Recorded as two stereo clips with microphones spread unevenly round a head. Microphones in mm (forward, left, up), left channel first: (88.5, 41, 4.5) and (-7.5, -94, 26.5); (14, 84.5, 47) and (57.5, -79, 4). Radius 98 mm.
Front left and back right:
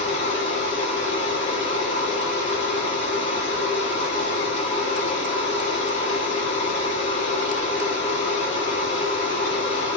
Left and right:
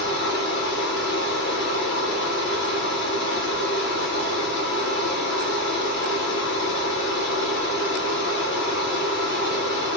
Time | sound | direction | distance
0.0 | a machine running | 95° left | 1.4 m